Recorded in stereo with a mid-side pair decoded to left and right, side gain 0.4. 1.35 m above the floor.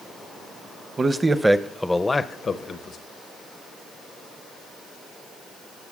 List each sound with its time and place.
1.0 s a man speaking: 35° right, 0.8 m; by 3.0 s 65° left, 0.9 m